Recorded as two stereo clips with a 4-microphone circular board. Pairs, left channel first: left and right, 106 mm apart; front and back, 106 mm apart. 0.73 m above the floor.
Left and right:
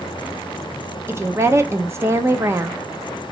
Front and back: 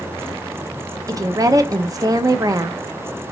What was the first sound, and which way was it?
A woman speaking, 145° right.